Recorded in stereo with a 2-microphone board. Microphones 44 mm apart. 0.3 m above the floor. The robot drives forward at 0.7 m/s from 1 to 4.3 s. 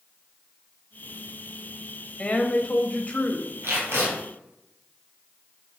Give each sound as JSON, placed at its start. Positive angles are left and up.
{"t": 2.2, "sound": "a woman speaking", "side_deg": 30, "distance_m": 1.1}
{"t": 3.6, "sound": "tape being pulled", "side_deg": -70, "distance_m": 3.5}